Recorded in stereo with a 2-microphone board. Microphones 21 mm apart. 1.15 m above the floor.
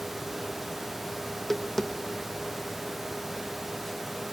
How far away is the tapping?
About 0.8 m.